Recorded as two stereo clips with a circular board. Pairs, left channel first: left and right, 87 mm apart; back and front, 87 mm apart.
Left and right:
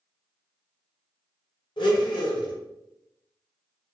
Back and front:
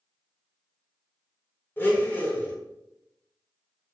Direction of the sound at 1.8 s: 115° left.